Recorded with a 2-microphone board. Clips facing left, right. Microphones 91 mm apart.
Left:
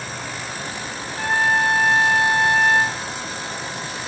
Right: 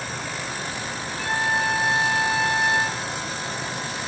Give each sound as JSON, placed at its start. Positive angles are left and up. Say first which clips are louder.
{"t": 1.2, "sound": "a trumpet", "louder": "left 5 dB", "side_deg": 55, "distance_m": 3.5}